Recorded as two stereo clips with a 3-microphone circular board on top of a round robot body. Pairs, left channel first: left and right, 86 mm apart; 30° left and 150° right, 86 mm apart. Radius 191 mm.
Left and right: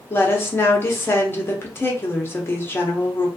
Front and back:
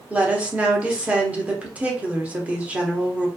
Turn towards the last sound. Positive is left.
turn(degrees=140)